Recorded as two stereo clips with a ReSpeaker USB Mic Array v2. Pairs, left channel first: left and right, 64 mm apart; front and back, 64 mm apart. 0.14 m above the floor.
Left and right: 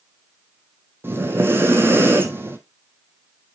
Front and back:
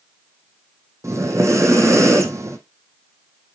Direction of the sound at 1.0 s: 145° right.